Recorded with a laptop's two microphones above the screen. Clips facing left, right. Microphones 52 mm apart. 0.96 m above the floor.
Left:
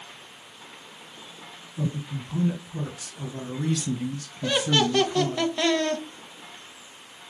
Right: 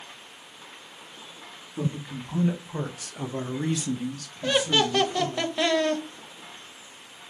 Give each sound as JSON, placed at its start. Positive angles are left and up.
{"t": 1.8, "sound": "a man speaking", "side_deg": -70, "distance_m": 1.5}
{"t": 4.4, "sound": "laughter", "side_deg": -5, "distance_m": 0.7}